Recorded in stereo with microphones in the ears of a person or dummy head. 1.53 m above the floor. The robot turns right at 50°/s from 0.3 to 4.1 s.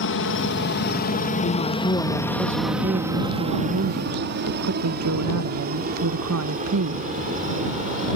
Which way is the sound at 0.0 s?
60° left (ahead or behind).